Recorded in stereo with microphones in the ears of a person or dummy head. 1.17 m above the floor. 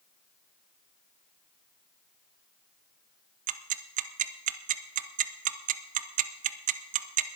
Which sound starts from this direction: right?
Ticking, at 3.5 s.